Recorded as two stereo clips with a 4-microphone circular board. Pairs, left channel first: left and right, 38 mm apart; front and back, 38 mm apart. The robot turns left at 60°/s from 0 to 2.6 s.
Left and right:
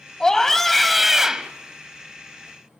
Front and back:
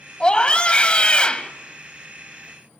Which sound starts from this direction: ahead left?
A scream, at 0.2 s.